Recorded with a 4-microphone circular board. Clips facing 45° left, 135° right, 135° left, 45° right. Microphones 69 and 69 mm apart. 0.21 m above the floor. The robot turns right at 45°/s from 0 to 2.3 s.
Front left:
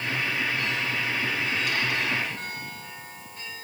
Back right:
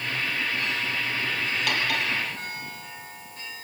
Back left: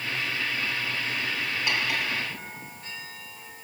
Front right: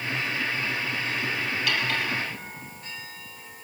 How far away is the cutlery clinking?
About 3.5 m.